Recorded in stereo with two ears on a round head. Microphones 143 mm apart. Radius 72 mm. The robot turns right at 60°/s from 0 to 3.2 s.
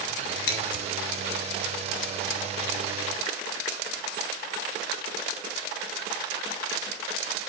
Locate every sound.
0.5 s scissors: 65° left (ahead or behind), 2 m; by 0.8 s 55° left (ahead or behind), 2 m